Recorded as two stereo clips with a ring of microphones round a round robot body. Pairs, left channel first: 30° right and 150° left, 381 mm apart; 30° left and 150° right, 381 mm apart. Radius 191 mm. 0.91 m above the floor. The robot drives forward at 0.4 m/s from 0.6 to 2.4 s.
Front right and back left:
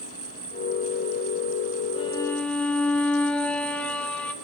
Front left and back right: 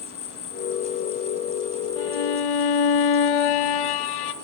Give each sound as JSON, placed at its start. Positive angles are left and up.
{"t": 0.0, "sound": "an insect", "azimuth_deg": 85, "distance_m": 1.7}
{"t": 2.0, "sound": "a violin", "azimuth_deg": 45, "distance_m": 0.9}